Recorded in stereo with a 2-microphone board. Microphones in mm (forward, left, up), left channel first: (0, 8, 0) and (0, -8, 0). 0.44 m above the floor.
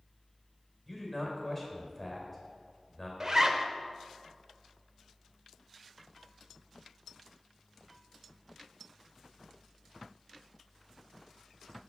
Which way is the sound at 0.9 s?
5° left (ahead or behind).